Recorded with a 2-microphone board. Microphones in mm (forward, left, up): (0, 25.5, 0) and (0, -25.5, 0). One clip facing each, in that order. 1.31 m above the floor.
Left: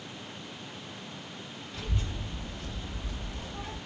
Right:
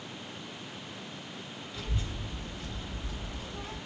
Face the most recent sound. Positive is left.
turn(degrees=50)  # may be behind; listen again after turning